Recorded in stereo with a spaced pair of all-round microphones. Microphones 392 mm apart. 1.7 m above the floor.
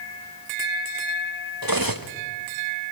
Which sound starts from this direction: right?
Cutlery clinking, at 1.6 s.